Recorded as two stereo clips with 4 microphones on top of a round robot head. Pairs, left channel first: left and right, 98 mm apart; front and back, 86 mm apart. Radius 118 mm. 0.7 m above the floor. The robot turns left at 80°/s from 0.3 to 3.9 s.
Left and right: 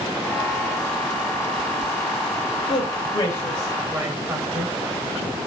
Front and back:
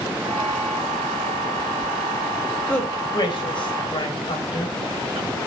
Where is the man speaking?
80° left, 4 m; by 4.8 s 20° right, 4 m.